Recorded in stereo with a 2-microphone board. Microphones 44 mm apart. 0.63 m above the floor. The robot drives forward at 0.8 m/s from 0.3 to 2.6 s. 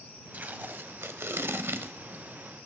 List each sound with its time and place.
0.3 s tape being pulled: 45° right (ahead or behind), 1.2 m; by 2.2 s 50° right (ahead or behind), 1.1 m